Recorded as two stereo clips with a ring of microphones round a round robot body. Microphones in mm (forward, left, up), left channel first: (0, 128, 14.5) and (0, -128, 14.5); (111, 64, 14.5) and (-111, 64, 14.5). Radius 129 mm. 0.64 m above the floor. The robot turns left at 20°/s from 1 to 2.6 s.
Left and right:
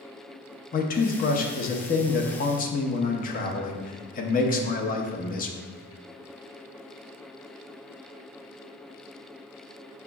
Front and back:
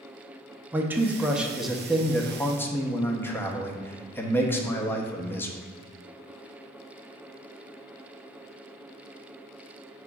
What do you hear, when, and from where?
0.7 s a man speaking: 105° left, 0.5 m; by 5.6 s 70° left, 0.5 m